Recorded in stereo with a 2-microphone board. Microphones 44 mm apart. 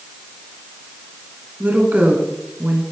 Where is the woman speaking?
40° right (ahead or behind), 2.5 m; by 2.8 s 55° right (ahead or behind), 3 m.